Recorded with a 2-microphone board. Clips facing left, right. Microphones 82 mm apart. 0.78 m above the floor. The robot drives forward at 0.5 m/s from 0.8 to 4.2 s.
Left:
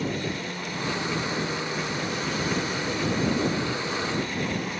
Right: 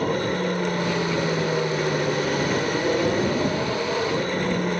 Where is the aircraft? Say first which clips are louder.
Right 7 dB; 50° right (ahead or behind).